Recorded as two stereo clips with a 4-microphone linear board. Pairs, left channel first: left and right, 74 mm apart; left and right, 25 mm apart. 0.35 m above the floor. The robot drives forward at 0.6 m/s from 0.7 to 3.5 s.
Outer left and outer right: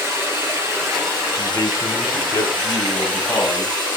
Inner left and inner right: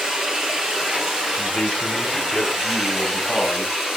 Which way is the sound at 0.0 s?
30° right (ahead or behind).